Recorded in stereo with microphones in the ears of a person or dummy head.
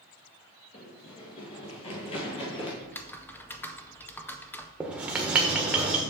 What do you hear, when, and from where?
0.7 s running footsteps: 25° left (ahead or behind), 1.4 m
2.8 s typing on a keyboard: 10° left (ahead or behind), 0.5 m
4.8 s writing: 10° right (ahead or behind), 1.2 m